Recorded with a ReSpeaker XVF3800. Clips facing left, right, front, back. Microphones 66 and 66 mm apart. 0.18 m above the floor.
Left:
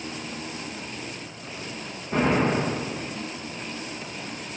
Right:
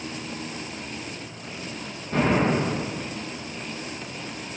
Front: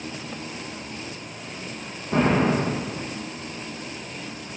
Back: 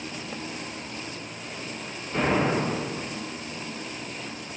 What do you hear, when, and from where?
2.1 s an explosion: 10° left, 5.5 m